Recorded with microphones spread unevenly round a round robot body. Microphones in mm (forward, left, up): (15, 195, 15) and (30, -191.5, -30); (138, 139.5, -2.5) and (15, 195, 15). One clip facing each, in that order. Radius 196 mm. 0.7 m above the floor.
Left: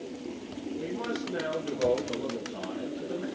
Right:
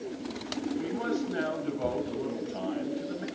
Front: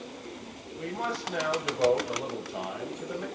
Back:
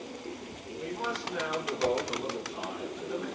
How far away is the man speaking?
About 3 m.